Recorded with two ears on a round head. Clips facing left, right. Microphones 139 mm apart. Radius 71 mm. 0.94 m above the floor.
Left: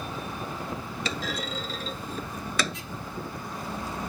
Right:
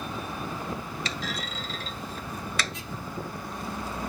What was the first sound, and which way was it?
A clunk, 75° left (ahead or behind).